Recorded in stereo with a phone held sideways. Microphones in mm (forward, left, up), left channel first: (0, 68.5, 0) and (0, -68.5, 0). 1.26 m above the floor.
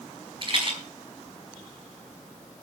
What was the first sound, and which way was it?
A rattle, 40° right (ahead or behind).